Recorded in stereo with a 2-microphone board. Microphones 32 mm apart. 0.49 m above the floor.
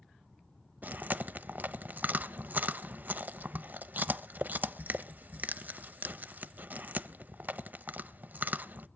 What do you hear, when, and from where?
0.8 s chewing: 60° right (ahead or behind), 0.6 m